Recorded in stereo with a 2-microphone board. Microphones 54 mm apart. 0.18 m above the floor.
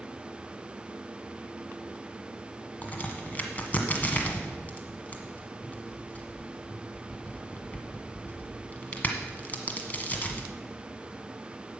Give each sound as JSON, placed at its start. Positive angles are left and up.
{"t": 2.8, "sound": "a crack", "side_deg": 30, "distance_m": 1.5}